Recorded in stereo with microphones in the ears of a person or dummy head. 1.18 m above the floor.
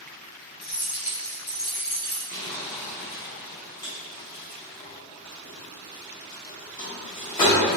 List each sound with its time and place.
0.6 s keys jangling: 55° left (ahead or behind), 1.2 m; by 2.2 s centre (ahead or behind), 0.7 m
2.3 s crumpling: 20° left (ahead or behind), 0.7 m